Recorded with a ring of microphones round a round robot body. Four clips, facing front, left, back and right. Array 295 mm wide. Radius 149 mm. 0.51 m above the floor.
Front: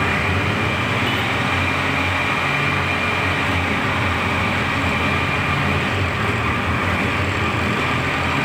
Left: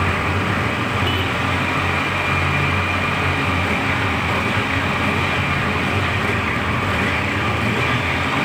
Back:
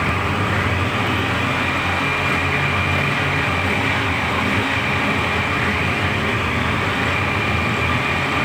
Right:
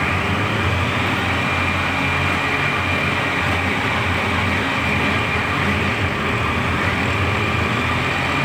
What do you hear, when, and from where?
Only background noise.